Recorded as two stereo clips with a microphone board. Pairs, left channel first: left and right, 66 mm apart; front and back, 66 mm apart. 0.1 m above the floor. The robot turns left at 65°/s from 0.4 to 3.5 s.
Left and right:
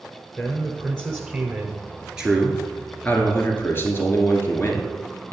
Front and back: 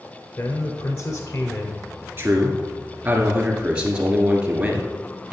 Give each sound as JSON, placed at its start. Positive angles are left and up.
{"t": 0.4, "sound": "a man speaking", "azimuth_deg": 10, "distance_m": 1.2}
{"t": 2.2, "sound": "a man speaking", "azimuth_deg": -160, "distance_m": 1.5}